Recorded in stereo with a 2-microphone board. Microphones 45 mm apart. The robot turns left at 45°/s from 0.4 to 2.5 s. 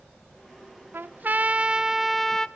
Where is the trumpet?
125° right, 0.5 m; by 2.5 s 165° left, 0.5 m.